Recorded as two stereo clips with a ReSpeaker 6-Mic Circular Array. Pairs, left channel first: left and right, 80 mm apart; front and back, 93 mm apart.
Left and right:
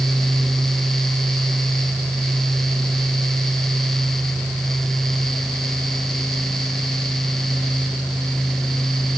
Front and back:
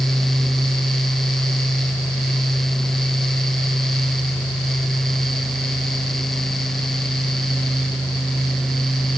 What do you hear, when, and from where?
Only background noise.